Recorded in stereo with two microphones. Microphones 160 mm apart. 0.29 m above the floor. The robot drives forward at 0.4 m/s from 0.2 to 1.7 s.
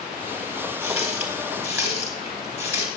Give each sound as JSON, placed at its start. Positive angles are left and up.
{"t": 0.8, "sound": "a running tap", "side_deg": -15, "distance_m": 4.0}